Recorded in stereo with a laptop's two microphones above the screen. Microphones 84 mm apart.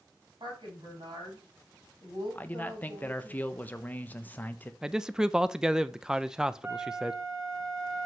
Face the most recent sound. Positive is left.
turn(degrees=-40)  # may be behind; listen again after turning